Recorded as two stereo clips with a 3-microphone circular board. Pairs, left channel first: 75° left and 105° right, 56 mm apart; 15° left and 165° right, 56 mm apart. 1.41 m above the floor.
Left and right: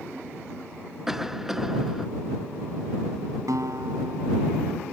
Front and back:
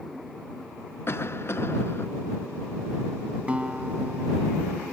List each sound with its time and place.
1.1 s a cough: 20° right
3.5 s a guitar: 95° right